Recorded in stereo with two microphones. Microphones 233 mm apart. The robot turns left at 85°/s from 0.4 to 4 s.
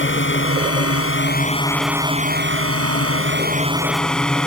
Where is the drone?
125° left; by 4.5 s 175° left.